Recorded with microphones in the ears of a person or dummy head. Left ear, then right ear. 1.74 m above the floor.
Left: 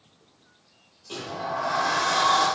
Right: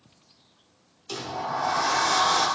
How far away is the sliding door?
About 1.0 m.